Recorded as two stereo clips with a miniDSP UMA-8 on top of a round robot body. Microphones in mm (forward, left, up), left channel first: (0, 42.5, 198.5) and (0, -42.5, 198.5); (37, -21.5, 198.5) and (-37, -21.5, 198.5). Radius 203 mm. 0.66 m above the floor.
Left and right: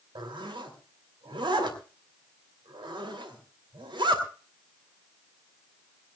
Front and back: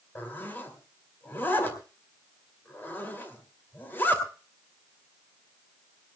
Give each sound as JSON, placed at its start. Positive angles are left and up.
{"t": 0.1, "sound": "a zipper", "azimuth_deg": -65, "distance_m": 3.0}